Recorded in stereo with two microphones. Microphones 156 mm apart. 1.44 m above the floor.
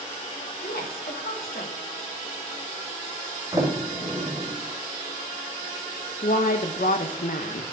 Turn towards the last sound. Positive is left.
turn(degrees=65)  # may be behind; listen again after turning